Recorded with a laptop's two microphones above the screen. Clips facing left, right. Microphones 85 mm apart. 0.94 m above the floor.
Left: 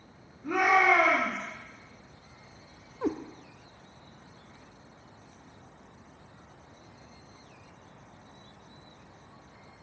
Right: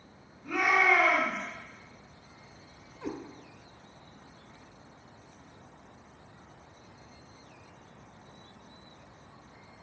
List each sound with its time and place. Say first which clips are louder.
0.4 s a shout: left 3 dB; 35° left (ahead or behind), 2.5 m
3.0 s a cat meowing: left 7 dB; 55° left (ahead or behind), 0.7 m